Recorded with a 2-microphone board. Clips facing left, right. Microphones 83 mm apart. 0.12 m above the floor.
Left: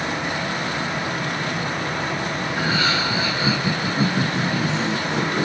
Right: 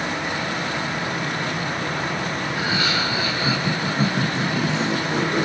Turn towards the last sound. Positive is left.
turn(degrees=-15)  # may be behind; listen again after turning